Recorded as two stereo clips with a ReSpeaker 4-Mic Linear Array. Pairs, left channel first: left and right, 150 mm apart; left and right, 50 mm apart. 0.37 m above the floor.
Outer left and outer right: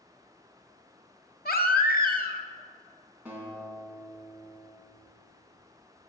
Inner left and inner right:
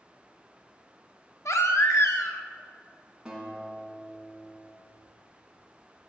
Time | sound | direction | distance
1.4 | a baby crying | 85° left | 0.9 m
3.2 | a guitar | 10° right (ahead or behind) | 2.5 m